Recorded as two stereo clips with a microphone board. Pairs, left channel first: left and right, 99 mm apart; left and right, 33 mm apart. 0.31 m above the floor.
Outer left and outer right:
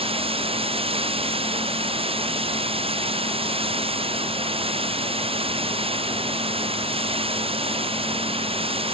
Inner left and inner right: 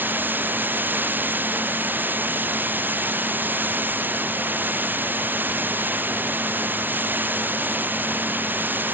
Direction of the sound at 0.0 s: 70° right (ahead or behind).